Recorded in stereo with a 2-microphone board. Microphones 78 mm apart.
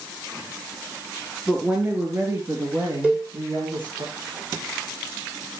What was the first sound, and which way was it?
A woman speaking, 10° right (ahead or behind).